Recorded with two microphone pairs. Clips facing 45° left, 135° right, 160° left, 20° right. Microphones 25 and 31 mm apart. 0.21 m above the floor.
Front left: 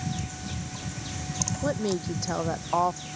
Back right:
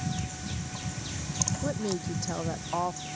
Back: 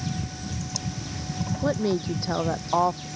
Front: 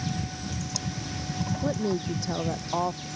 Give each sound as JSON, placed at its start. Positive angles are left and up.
{"t": 1.6, "sound": "a woman speaking", "azimuth_deg": 110}